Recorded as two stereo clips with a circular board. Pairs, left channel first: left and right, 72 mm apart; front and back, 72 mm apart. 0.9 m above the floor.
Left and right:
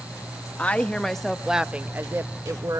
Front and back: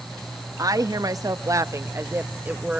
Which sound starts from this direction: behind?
A woman speaking, at 0.6 s.